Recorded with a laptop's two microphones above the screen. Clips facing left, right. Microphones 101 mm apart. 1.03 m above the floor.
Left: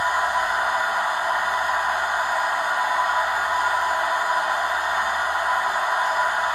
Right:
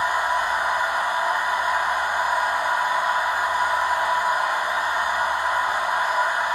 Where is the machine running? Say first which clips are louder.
Even; 60° left (ahead or behind), 1.7 m.